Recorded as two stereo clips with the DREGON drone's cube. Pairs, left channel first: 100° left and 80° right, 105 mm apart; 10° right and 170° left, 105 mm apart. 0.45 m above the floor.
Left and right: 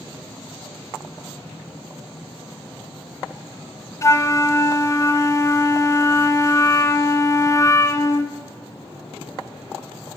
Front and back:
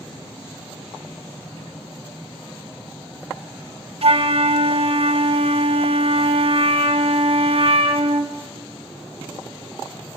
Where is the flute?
160° left, 0.7 m.